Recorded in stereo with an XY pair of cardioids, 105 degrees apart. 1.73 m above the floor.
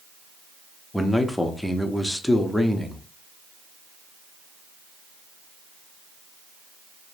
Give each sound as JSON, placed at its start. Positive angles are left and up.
{"t": 0.9, "sound": "a man speaking", "azimuth_deg": 10, "distance_m": 0.5}